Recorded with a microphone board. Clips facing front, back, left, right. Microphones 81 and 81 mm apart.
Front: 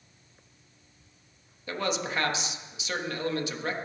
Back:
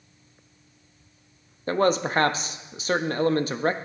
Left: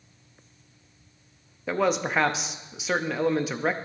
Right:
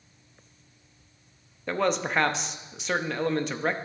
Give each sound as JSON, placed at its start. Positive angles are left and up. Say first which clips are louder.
{"t": 1.7, "sound": "a man speaking", "louder": "back 9 dB, left 2 dB", "azimuth_deg": 175, "distance_m": 0.6}